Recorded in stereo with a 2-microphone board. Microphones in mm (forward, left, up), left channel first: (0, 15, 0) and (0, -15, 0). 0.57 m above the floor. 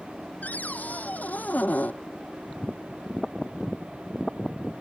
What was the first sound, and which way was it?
A cupboard door, 60° left (ahead or behind).